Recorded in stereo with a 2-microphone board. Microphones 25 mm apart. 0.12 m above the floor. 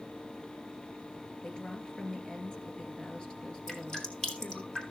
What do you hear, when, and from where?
1.4 s a woman speaking: 30° left (ahead or behind), 2 m
3.7 s dripping: 25° left (ahead or behind), 2.5 m